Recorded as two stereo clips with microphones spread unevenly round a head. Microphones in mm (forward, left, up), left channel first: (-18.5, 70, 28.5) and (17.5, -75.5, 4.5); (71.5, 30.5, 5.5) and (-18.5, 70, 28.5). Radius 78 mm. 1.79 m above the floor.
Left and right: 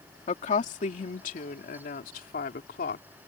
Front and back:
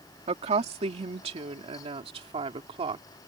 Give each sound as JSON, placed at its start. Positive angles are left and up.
{"t": 0.3, "sound": "a woman speaking", "azimuth_deg": 150}